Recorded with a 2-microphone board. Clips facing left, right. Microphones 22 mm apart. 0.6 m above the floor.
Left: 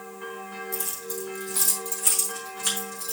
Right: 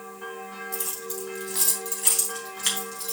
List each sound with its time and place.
0.7 s keys jangling: 25° right (ahead or behind), 3 m; by 3.1 s 60° right (ahead or behind), 3.5 m